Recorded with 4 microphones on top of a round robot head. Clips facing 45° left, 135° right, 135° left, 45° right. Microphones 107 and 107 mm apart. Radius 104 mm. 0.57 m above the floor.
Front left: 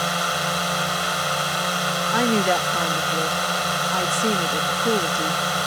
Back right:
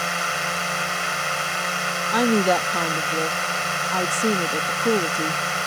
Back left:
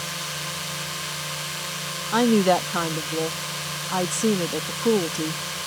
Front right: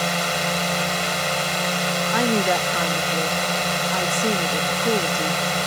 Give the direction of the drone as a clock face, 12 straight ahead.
1 o'clock.